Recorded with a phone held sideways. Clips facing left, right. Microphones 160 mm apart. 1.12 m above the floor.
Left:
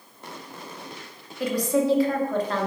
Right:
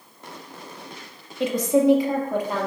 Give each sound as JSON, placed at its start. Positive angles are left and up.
{"t": 1.4, "sound": "a woman speaking", "side_deg": -25, "distance_m": 1.6}